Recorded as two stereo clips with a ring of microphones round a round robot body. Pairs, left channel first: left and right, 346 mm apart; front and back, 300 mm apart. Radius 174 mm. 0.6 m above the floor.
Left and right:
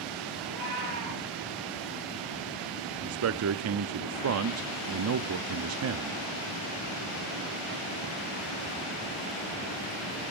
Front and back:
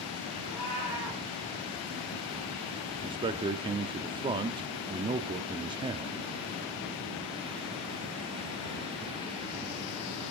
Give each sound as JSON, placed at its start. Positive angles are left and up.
{"t": 0.4, "sound": "a cat meowing", "azimuth_deg": -55, "distance_m": 6.5}
{"t": 3.0, "sound": "a man speaking", "azimuth_deg": -110, "distance_m": 0.7}